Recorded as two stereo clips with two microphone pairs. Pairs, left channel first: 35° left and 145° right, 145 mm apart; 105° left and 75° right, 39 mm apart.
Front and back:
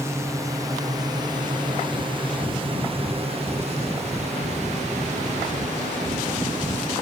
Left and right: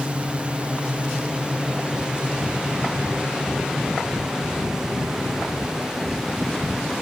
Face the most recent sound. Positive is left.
turn(degrees=-150)